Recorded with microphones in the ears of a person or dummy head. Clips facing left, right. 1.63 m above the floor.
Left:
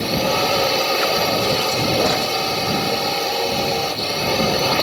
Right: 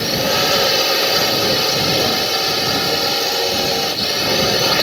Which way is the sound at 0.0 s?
15° right (ahead or behind).